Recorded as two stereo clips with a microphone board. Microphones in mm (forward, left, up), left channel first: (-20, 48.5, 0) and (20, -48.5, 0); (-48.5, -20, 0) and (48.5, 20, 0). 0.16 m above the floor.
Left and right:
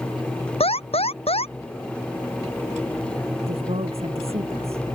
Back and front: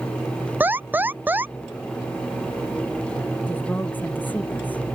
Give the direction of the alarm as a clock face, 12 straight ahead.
9 o'clock.